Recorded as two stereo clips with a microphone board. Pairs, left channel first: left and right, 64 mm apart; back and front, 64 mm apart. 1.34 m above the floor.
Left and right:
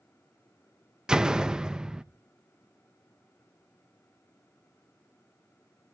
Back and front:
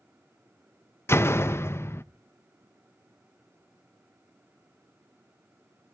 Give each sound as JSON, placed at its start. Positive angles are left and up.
{"t": 1.1, "sound": "a door slam", "azimuth_deg": -165, "distance_m": 0.6}